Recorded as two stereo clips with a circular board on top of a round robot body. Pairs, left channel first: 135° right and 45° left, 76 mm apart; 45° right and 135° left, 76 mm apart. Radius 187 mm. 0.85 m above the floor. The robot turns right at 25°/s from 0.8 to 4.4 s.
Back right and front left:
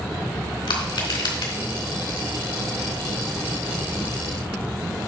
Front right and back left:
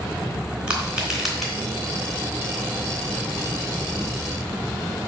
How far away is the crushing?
About 3.5 m.